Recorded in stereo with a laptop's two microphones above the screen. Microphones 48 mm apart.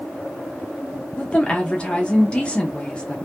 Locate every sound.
1.2 s a woman speaking: 20° left (ahead or behind), 0.9 m